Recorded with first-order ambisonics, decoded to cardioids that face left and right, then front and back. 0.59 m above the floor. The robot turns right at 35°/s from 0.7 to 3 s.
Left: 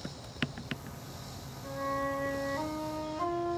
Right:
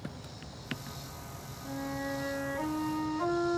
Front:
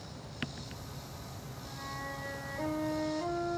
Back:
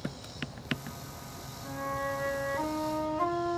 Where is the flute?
115° left, 4 m; by 3.6 s 165° left, 4 m.